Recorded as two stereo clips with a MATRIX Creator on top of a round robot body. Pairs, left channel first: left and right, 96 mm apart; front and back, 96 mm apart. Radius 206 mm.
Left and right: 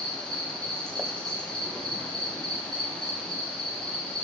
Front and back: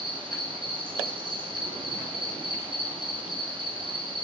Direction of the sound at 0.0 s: 170° left.